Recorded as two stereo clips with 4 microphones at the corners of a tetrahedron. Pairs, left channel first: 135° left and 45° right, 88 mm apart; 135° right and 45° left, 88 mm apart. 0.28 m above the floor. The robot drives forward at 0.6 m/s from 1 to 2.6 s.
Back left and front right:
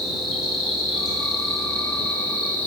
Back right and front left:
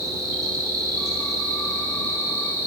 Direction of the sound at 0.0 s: 45° left.